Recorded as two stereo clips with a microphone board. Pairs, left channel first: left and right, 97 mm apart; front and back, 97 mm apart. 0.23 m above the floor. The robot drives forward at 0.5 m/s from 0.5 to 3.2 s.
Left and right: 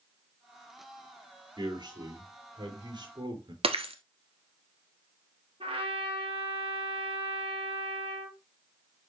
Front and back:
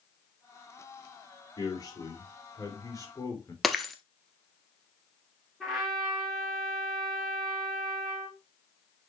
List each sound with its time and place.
1.6 s a man speaking: 50° right, 5 m; by 3.5 s 55° right, 4.5 m
3.6 s breaking glass: 90° right, 1.2 m
5.6 s a trumpet: 90° right, 3.5 m